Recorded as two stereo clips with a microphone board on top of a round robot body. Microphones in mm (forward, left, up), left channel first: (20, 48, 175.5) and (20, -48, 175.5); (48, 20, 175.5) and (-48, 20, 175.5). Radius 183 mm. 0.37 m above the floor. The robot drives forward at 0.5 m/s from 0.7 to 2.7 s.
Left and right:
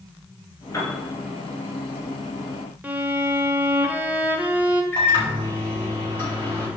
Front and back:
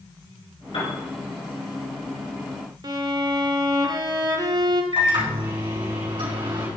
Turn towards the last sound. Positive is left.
turn(degrees=155)